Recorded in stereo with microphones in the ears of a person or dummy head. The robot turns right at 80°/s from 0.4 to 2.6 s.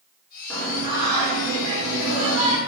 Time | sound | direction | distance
0.5 | singing | 165° left | 0.6 m